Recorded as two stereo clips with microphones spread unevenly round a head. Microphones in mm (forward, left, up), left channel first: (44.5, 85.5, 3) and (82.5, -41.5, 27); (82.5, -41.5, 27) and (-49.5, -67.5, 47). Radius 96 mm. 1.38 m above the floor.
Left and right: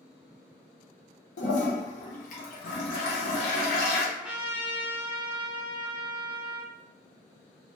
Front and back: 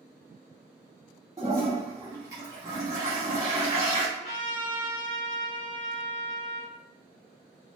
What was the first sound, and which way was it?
A toilet flushing, 130° left.